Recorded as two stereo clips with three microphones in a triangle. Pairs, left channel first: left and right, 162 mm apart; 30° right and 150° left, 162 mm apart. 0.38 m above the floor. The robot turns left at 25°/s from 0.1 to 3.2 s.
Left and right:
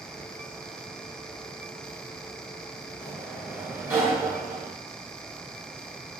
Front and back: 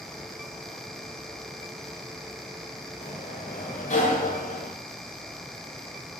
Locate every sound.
3.0 s a sliding door: 10° right, 1.1 m; by 4.7 s 15° right, 1.1 m